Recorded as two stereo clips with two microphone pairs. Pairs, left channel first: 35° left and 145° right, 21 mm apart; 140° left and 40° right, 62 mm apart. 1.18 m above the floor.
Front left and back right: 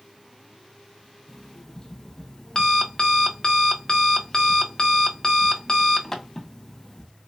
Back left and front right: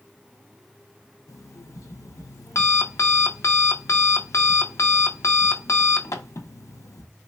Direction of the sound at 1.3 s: 105° left.